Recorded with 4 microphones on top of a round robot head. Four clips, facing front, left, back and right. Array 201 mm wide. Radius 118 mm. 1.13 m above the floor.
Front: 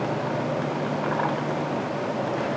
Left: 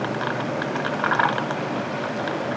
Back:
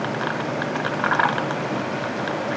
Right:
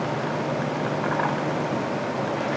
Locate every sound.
Only background noise.